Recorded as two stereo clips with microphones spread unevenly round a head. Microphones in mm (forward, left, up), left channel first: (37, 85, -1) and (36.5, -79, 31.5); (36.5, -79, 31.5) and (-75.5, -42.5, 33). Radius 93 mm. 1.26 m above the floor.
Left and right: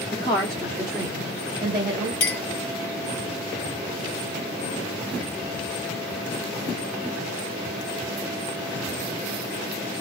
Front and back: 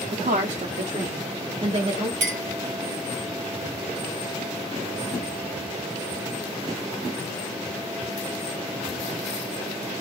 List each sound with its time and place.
0.1 s a woman speaking: 145° left, 0.7 m; by 2.1 s 155° right, 1.4 m
2.2 s a clink: 130° left, 0.8 m